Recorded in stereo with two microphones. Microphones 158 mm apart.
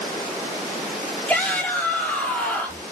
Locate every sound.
1.3 s a shout: 5° left (ahead or behind), 4.5 m